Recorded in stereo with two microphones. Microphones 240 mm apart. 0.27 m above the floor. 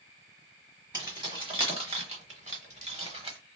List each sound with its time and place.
0.9 s keys jangling: 20° right (ahead or behind), 1.4 m; by 3.4 s 25° right (ahead or behind), 1.1 m